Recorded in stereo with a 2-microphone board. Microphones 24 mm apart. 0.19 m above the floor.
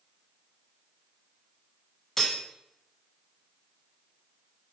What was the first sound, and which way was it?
Cutlery clinking, 15° left (ahead or behind).